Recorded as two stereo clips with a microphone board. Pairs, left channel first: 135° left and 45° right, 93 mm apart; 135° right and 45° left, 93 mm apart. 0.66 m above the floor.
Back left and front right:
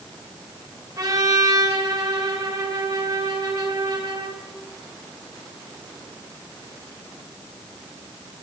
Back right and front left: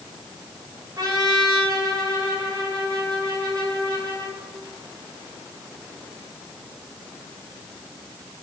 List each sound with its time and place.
1.0 s a trumpet: straight ahead, 2.5 m